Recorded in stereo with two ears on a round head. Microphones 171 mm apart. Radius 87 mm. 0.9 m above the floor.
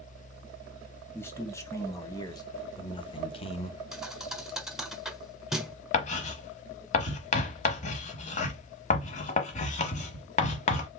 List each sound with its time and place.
1.1 s a man speaking: 15° left (ahead or behind), 1.8 m; by 3.8 s 35° left (ahead or behind), 0.9 m
3.9 s a thud: 5° right (ahead or behind), 1.1 m
5.9 s writing: 40° left (ahead or behind), 1.0 m